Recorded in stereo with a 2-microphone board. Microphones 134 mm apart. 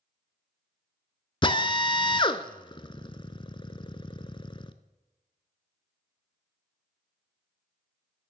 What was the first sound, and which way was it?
A drill, 40° left (ahead or behind).